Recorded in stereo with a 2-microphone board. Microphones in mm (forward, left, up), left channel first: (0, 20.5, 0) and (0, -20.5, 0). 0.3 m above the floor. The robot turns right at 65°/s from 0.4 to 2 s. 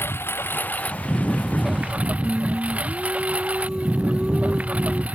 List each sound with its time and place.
0.0 s a lawn mower: 115° left; by 5.1 s 140° right
2.2 s singing: 20° right (ahead or behind)